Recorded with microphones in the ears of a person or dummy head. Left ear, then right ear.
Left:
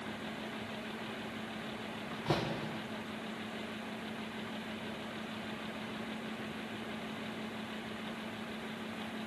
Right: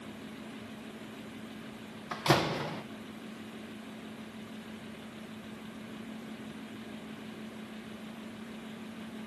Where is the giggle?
I don't hear a giggle.